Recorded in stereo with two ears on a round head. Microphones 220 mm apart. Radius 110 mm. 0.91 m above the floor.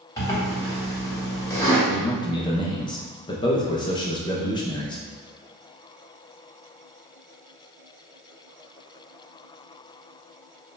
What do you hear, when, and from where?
0.2 s a zipper: 15° left (ahead or behind), 1.3 m
1.9 s a man speaking: 20° left (ahead or behind), 0.5 m